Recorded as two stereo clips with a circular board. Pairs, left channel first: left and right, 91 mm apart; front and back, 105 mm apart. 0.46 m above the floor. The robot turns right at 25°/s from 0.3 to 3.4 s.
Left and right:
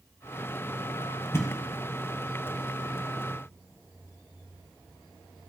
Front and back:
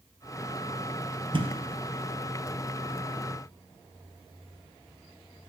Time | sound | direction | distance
1.3 | a thud | 150° left | 1.1 m